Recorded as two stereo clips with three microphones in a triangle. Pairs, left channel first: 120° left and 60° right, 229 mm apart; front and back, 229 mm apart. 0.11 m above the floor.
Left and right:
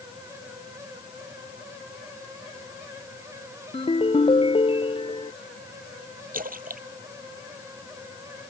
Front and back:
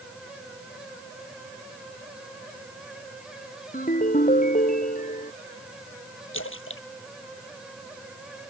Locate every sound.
3.7 s a ringtone: 55° left
6.3 s a splash: 10° right